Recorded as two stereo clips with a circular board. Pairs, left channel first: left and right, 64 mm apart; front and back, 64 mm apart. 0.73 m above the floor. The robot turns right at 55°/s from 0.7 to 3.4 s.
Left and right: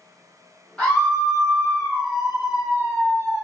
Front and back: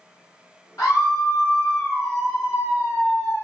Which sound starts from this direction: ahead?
A scream, at 0.8 s.